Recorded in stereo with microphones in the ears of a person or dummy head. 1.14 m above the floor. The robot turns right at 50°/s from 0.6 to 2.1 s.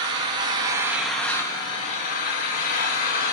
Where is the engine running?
30° right, 1.1 m; by 3.3 s 45° left, 1.1 m.